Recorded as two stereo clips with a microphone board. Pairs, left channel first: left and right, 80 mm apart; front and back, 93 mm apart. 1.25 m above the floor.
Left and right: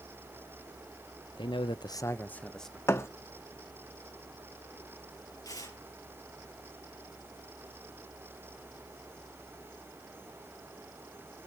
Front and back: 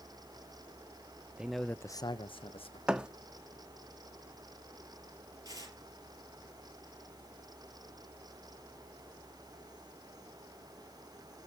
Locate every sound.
1.4 s a man speaking: 100° left, 0.8 m; by 2.8 s 5° left, 1.2 m
2.9 s a thud: 105° left, 0.8 m
5.5 s tearing paper: 130° left, 6.5 m